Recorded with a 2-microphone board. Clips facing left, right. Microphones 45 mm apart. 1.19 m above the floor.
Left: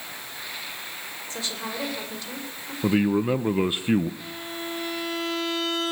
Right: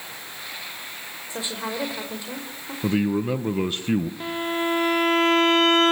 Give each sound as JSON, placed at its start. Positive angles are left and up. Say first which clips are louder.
{"t": 1.3, "sound": "a woman speaking", "louder": "right 3 dB", "side_deg": -15, "distance_m": 5.5}
{"t": 2.8, "sound": "a man speaking", "louder": "left 1 dB", "side_deg": 15, "distance_m": 1.0}
{"t": 4.2, "sound": "a violin", "louder": "right 9 dB", "side_deg": -50, "distance_m": 0.7}